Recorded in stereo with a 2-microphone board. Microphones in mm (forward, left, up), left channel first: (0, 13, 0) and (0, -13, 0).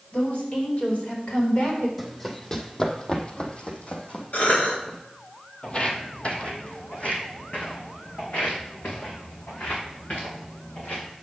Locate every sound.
0.1 s a woman speaking: 50° left (ahead or behind), 5 m; by 1.9 s 65° left (ahead or behind), 3.5 m
2.0 s running footsteps: 10° left (ahead or behind), 1.7 m; by 5.0 s 65° left (ahead or behind), 2 m
4.3 s a cough: 70° left (ahead or behind), 2.5 m
5.6 s footsteps: 40° left (ahead or behind), 1.4 m; by 11.1 s 75° left (ahead or behind), 5.5 m